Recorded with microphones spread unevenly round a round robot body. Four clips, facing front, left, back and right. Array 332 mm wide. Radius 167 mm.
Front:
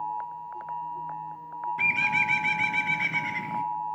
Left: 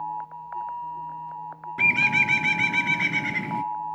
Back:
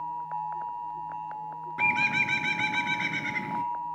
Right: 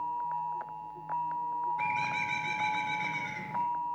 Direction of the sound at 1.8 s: 95° left.